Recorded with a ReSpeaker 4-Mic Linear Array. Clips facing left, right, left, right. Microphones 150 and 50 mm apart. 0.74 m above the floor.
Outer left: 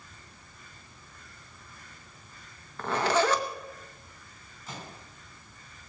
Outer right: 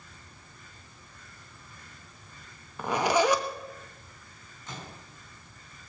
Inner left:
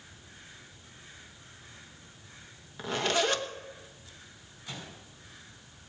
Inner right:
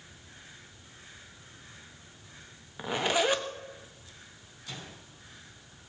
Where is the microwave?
5° left (ahead or behind), 5 m.